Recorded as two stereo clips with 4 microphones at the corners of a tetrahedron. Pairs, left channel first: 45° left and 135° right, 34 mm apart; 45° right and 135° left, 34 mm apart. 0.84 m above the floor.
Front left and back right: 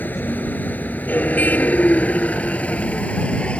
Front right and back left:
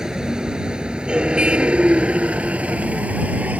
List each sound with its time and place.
0.0 s a vehicle: 65° left; by 3.6 s 100° left